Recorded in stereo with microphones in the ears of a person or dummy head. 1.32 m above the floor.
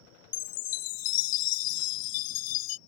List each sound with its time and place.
0.3 s a chime: 50° left (ahead or behind)